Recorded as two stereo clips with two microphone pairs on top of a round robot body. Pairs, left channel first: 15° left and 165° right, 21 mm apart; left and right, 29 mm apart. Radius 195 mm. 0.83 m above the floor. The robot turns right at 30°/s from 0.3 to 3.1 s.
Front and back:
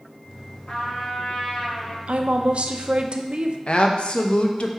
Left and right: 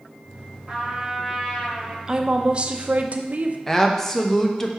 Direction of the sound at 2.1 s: 155° right.